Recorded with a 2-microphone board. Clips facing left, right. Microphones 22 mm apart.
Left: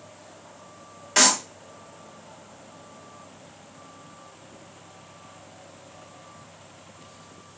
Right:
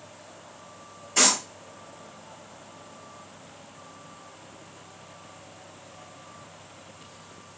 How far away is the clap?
About 3 m.